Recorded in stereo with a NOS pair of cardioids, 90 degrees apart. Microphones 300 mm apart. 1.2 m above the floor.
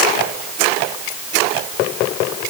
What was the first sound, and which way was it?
Only background noise.